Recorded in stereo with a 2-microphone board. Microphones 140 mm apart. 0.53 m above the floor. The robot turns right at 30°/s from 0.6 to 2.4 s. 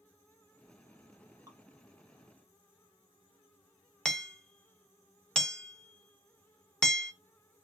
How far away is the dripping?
About 1.2 m.